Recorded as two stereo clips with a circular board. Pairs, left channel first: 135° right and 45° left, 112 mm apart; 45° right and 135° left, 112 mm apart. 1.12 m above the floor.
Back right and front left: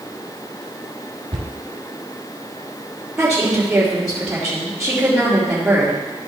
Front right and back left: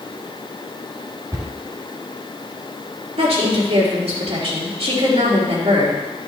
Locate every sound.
1.3 s a cupboard door: 80° left, 2 m
3.2 s a woman speaking: 125° left, 3 m